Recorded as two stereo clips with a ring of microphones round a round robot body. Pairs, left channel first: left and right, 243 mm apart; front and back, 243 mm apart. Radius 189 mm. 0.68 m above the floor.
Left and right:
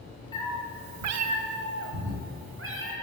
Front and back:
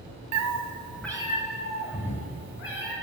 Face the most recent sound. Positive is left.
turn(degrees=-55)